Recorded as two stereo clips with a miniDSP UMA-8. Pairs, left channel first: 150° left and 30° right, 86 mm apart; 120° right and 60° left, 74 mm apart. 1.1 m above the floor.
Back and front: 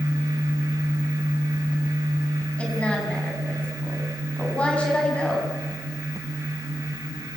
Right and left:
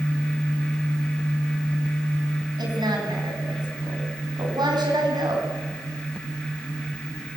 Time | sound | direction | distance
2.6 | a woman speaking | 75° left | 7 m